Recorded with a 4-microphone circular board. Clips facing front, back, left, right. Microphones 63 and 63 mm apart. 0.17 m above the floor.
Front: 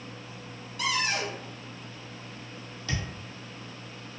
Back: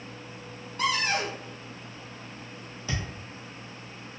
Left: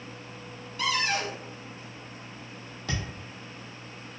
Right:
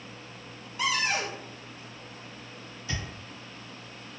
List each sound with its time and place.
0.8 s a cupboard door: 155° right, 0.6 m
2.9 s a thud: 110° left, 1.1 m